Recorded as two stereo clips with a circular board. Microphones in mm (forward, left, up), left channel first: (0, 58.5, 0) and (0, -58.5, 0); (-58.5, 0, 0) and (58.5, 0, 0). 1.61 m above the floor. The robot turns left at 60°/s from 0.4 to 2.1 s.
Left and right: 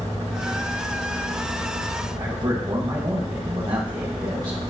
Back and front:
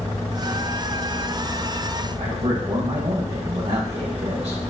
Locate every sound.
2.2 s a man speaking: 35° right, 1.8 m